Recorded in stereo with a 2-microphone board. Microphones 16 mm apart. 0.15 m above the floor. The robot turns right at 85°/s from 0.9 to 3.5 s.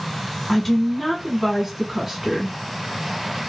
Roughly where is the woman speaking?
Centre.